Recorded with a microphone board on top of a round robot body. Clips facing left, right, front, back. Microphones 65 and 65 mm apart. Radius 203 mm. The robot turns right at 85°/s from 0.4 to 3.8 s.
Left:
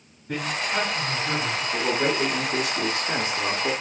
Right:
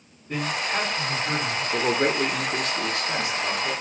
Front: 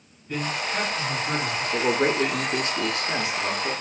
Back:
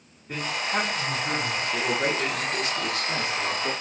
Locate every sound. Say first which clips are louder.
0.3 s a man speaking: even, even; 115° left, 3 m; by 1.6 s 140° right, 3 m
1.7 s a man speaking: right 2 dB, front 5 dB; 65° right, 1.2 m; by 3.7 s 105° left, 1.2 m